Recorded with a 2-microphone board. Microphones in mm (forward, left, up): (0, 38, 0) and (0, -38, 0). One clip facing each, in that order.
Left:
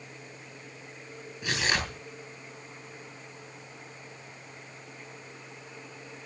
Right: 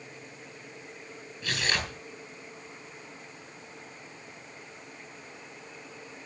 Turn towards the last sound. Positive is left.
turn(degrees=20)  # may be behind; listen again after turning